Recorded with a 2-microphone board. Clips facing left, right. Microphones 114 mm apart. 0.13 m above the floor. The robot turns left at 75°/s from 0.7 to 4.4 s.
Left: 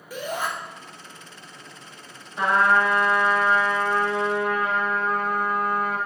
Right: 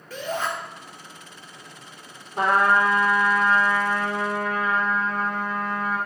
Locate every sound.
0.1 s a shout: 10° left (ahead or behind), 3 m
2.4 s a trumpet: 105° right, 4 m; by 6.0 s 105° left, 4 m